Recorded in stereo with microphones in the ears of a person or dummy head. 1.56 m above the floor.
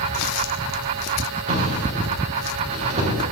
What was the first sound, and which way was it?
A drawer, 40° right (ahead or behind).